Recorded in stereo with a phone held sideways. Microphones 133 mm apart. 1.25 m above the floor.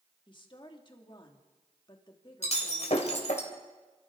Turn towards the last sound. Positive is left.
turn(degrees=60)  # may be behind; listen again after turning